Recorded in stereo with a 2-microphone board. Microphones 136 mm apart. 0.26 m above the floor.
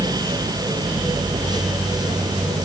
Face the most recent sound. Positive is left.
No sound to turn to.